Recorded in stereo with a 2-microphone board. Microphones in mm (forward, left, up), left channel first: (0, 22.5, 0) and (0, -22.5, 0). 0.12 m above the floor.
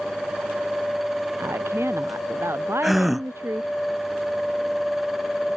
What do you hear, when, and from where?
1.4 s a woman speaking: 75° right (ahead or behind); by 3.7 s 70° right (ahead or behind)
2.8 s a gasp: centre (ahead or behind)